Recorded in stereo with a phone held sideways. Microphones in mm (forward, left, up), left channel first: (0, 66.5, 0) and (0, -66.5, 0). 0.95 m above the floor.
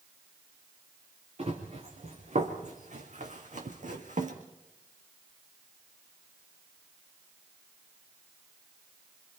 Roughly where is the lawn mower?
I don't hear a lawn mower.